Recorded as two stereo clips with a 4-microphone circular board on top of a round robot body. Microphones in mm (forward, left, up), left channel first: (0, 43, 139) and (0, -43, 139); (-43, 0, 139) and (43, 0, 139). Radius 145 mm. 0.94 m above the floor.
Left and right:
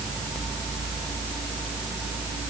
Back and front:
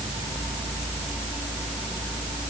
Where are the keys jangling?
No keys jangling in this recording.